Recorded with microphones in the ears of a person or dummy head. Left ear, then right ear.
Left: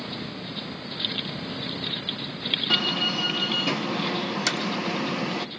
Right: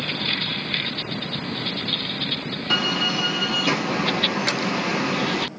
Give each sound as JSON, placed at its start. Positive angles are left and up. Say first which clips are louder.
{"t": 2.7, "sound": "a door slam", "louder": "right 5 dB", "side_deg": 0, "distance_m": 1.0}
{"t": 4.5, "sound": "hammering", "louder": "right 2 dB", "side_deg": 80, "distance_m": 4.0}